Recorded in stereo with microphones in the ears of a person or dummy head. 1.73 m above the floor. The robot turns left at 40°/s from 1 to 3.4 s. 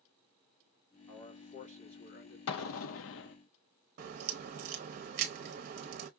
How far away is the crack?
About 0.8 m.